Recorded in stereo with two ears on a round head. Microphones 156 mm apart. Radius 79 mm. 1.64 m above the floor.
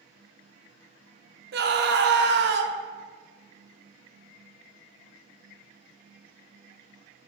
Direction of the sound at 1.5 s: 65° right (ahead or behind).